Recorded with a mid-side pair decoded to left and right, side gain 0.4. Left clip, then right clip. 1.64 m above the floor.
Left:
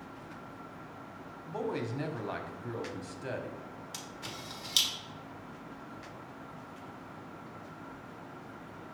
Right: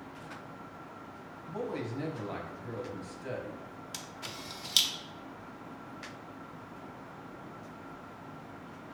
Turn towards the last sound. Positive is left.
turn(degrees=-20)